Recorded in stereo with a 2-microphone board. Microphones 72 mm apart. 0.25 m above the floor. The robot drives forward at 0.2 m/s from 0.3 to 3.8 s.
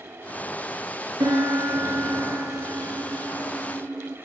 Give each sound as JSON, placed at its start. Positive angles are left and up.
{"t": 1.2, "sound": "a piano", "side_deg": -70, "distance_m": 0.6}